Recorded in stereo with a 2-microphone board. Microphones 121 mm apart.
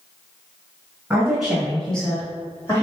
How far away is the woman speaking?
About 1.6 m.